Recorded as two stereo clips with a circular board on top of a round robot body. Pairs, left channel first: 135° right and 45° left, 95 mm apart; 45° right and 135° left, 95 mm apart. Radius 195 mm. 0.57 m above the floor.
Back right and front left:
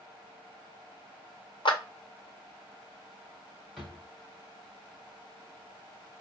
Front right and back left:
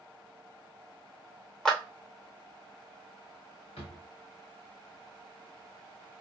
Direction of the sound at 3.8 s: 45° right.